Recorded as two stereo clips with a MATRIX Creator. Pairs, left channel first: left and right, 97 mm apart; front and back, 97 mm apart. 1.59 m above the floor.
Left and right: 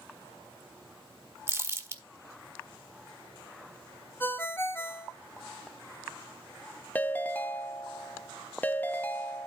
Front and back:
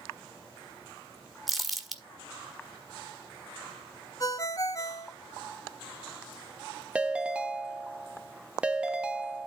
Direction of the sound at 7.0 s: 120° left.